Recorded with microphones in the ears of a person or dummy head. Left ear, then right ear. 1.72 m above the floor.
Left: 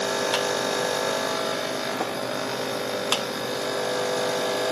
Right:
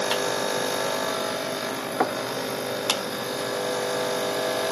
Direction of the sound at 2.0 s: 65° right (ahead or behind).